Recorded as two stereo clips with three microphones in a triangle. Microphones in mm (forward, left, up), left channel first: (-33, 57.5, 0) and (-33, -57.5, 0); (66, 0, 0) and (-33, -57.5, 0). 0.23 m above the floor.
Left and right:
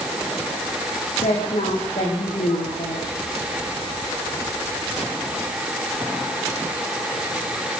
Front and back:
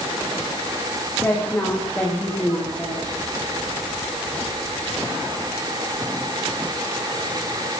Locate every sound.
1.2 s a woman speaking: 105° left, 10 m; by 3.2 s 110° left, 10.5 m